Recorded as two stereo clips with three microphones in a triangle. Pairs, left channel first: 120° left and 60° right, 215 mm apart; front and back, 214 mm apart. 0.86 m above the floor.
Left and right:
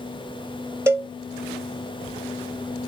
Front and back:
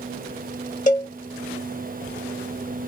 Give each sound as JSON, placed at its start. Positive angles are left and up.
{"t": 0.9, "sound": "a cowbell", "azimuth_deg": 10, "distance_m": 0.7}